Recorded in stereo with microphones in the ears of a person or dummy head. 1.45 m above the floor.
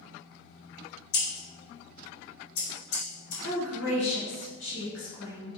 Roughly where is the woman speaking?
Left.